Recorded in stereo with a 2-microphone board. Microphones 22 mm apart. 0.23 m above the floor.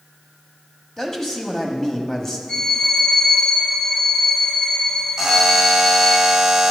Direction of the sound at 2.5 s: 55° left (ahead or behind).